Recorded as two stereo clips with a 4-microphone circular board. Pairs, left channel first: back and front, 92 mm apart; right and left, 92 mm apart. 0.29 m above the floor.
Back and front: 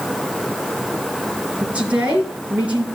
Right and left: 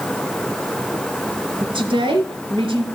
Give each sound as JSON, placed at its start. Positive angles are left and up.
{"t": 1.6, "sound": "a woman speaking", "azimuth_deg": 75, "distance_m": 4.0}